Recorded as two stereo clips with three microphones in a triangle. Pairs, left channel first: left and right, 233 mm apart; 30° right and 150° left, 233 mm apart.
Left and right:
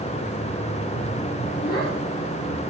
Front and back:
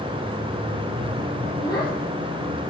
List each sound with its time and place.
1.6 s a child speaking: 40° left, 9 m